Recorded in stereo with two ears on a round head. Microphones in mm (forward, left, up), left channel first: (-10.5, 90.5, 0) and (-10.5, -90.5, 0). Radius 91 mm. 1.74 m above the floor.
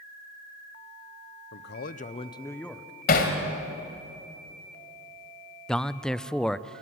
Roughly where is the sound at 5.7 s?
Centre.